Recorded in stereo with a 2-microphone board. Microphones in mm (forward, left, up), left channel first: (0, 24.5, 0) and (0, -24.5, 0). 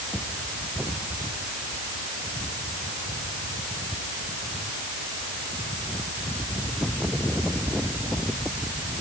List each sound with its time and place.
Only background noise.